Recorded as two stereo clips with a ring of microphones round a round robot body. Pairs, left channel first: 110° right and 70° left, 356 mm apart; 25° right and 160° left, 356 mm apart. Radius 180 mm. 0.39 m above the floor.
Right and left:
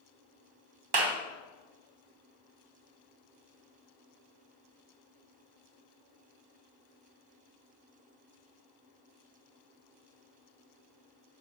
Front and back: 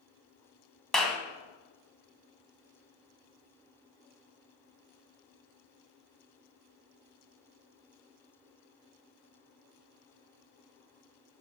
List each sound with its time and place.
0.9 s a clap: 65° left, 2 m